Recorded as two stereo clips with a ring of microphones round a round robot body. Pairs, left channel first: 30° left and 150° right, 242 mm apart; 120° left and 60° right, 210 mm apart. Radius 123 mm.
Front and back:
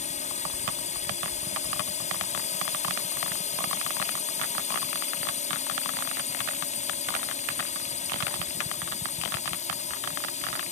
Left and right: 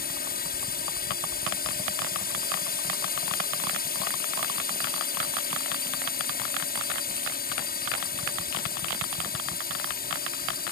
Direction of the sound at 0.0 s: 85° left.